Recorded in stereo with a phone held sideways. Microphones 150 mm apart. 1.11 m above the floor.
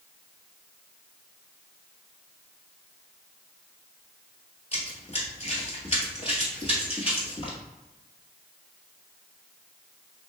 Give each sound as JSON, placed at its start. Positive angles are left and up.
{"t": 4.7, "sound": "running footsteps", "side_deg": 45, "distance_m": 1.5}